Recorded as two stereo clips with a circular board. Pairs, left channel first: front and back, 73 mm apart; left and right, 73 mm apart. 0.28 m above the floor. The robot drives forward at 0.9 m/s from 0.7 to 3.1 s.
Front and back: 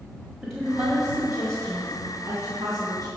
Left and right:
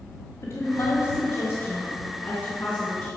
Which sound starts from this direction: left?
A woman speaking, at 0.4 s.